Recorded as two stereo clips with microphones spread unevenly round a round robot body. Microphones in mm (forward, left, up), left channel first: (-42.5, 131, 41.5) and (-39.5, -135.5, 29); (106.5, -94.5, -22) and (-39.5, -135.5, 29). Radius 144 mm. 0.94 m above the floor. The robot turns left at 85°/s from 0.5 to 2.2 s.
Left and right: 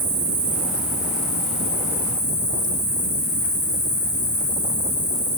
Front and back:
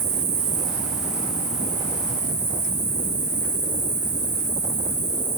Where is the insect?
160° right, 1.1 m; by 5.4 s 55° left, 1.1 m.